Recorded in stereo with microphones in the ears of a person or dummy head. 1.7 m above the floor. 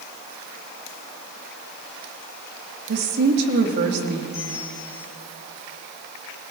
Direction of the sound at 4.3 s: 15° left (ahead or behind).